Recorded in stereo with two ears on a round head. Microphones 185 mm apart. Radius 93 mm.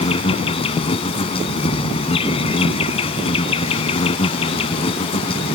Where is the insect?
25° left (ahead or behind).